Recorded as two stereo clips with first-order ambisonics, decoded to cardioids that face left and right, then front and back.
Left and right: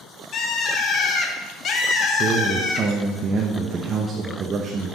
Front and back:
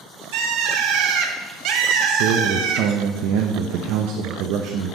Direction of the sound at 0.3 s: 145° left.